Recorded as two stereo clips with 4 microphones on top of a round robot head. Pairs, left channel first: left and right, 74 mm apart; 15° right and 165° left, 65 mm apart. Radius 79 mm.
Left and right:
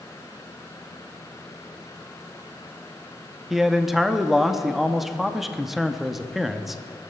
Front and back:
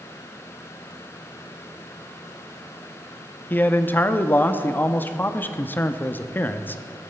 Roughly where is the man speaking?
Ahead.